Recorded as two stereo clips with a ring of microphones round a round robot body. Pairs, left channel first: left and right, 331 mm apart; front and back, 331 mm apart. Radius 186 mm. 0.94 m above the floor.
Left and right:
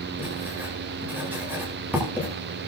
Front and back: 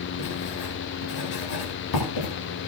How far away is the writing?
About 9 m.